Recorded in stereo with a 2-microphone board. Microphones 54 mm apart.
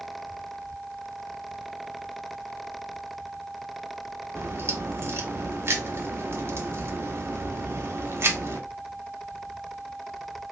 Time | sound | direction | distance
4.3 | a crack | 50° right (ahead or behind) | 0.8 m